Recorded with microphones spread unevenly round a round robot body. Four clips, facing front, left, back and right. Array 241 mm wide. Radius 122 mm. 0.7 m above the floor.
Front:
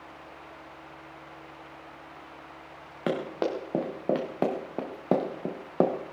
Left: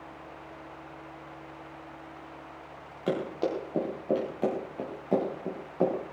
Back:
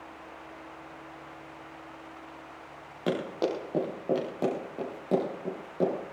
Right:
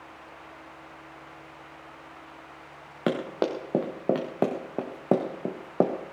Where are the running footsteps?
75° right, 5 m; by 5.9 s 50° right, 3 m.